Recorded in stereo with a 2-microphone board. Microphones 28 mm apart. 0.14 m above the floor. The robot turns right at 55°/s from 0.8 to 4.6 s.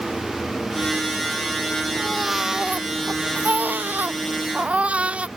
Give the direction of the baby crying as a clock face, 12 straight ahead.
6 o'clock.